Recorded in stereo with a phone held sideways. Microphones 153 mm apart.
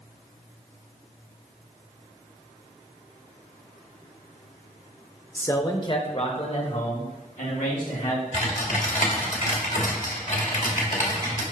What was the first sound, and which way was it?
A man speaking, 15° left (ahead or behind).